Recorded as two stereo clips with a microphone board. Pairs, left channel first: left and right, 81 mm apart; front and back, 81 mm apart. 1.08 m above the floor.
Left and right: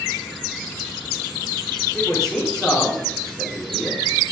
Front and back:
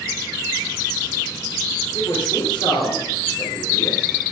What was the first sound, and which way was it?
A man speaking, 10° left.